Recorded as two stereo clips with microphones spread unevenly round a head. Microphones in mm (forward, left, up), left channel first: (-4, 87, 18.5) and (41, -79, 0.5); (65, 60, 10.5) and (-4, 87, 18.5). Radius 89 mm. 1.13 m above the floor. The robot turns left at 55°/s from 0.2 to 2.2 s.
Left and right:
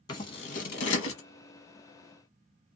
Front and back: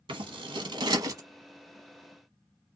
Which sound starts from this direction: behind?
Scissors, at 0.1 s.